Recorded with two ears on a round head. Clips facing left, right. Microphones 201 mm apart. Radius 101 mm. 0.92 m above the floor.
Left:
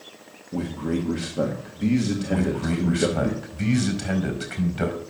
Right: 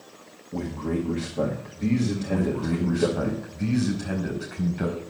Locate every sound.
0.5 s a man speaking: 15° left (ahead or behind), 1.6 m
2.3 s a man speaking: 75° left (ahead or behind), 4.5 m